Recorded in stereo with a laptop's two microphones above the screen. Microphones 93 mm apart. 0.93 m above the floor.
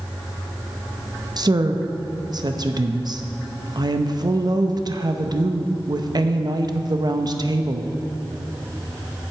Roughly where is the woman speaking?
Right.